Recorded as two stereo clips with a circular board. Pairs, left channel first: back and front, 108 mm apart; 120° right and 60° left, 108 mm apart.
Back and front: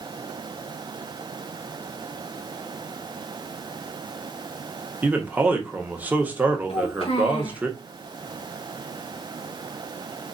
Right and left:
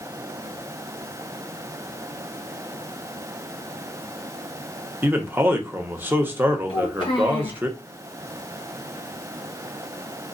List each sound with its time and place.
5.0 s a man speaking: 40° left, 0.8 m
6.7 s a child speaking: 160° right, 2 m